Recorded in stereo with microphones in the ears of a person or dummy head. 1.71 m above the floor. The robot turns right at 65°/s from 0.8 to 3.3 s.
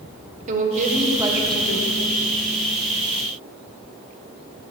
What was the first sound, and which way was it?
A woman speaking, 45° right.